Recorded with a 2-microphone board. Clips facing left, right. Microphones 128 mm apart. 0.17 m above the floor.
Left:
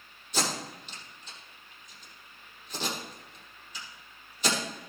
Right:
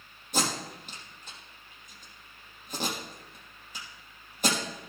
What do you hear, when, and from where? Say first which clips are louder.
0.3 s tape being pulled: right 1 dB; 50° right (ahead or behind), 4.5 m